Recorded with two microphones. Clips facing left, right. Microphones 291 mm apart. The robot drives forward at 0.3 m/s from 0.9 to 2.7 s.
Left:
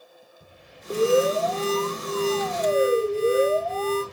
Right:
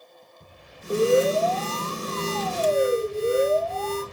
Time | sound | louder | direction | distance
0.9 | an alarm | right 1 dB | 5° left (ahead or behind) | 0.9 m